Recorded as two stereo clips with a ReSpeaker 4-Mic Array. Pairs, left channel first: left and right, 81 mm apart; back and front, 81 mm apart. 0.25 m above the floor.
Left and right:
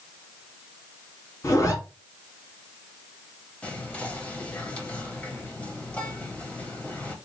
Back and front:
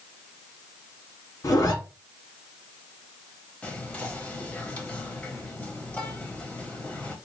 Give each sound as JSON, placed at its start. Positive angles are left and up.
{"t": 1.4, "sound": "a zipper", "azimuth_deg": 135, "distance_m": 1.5}
{"t": 3.6, "sound": "whispering", "azimuth_deg": 135, "distance_m": 1.0}